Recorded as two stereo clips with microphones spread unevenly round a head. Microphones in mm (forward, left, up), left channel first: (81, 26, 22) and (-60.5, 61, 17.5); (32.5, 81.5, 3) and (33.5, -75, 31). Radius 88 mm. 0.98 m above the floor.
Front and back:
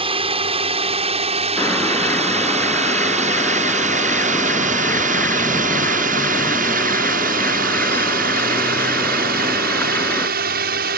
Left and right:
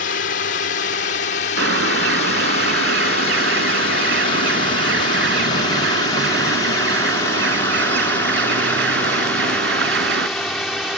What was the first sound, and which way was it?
A drone, 120° left.